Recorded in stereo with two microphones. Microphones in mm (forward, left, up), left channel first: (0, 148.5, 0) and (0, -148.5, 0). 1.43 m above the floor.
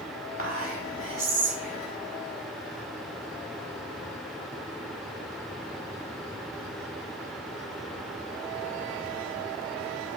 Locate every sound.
0.4 s whispering: 50° left (ahead or behind), 0.6 m